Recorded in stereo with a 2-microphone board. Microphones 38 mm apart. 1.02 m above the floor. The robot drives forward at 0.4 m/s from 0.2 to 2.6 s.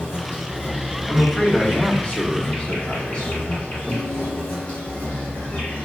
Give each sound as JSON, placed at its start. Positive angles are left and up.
{"t": 0.0, "sound": "an insect", "side_deg": 80, "distance_m": 2.0}
{"t": 1.1, "sound": "a man speaking", "side_deg": 30, "distance_m": 1.7}
{"t": 3.9, "sound": "a guitar", "side_deg": 25, "distance_m": 2.5}